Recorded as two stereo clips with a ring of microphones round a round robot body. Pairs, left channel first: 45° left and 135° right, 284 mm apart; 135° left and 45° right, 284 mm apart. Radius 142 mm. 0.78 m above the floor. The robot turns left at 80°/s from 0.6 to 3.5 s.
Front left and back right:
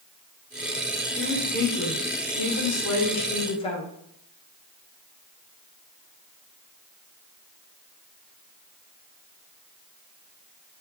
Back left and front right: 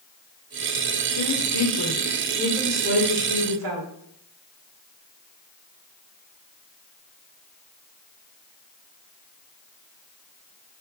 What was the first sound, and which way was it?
A woman speaking, 160° left.